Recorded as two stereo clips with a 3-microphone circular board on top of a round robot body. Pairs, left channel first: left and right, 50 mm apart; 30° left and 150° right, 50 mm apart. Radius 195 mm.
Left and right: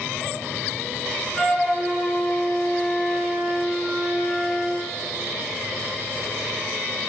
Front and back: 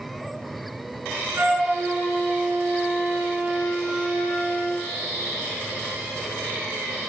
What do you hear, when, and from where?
1.4 s a flute: 165° left, 6.5 m